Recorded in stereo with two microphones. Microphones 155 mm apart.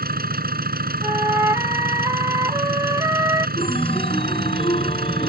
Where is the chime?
35° left (ahead or behind).